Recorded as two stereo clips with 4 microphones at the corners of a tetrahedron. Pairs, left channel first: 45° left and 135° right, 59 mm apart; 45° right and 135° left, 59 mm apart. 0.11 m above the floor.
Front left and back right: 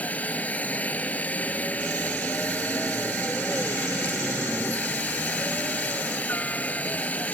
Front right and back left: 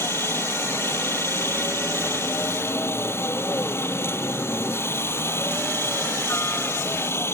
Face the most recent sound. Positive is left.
turn(degrees=-15)